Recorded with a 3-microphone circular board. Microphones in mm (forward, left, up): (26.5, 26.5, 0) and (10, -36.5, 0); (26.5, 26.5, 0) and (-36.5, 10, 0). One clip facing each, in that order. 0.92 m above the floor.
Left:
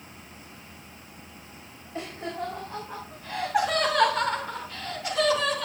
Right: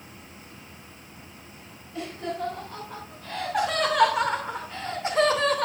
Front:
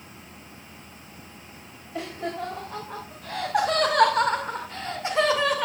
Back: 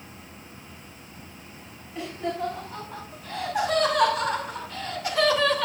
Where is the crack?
I don't hear a crack.